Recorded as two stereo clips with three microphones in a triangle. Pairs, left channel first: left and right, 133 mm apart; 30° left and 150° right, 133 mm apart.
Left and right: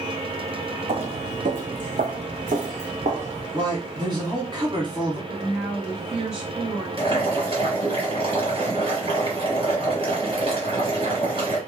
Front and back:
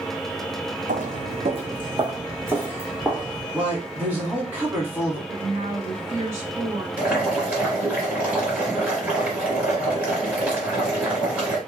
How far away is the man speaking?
About 1.4 m.